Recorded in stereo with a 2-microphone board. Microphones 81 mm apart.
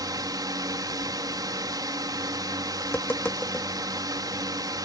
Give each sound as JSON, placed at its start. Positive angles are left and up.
{"t": 0.0, "sound": "a drone", "side_deg": -55}
{"t": 2.8, "sound": "tapping", "side_deg": 25}